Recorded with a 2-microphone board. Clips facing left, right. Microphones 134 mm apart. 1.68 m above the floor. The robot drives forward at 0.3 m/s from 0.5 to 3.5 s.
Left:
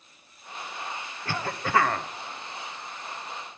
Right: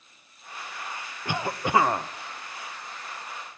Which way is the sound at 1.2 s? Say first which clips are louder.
Right 3 dB; 15° right (ahead or behind).